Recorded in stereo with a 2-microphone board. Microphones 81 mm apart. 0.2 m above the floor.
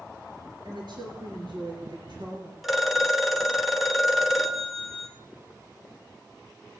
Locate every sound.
0.7 s a woman speaking: 70° right (ahead or behind), 4 m
2.6 s a phone ringing: centre (ahead or behind), 1.6 m